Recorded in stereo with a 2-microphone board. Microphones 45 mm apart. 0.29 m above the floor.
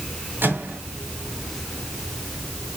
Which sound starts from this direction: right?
A microwave, at 0.4 s.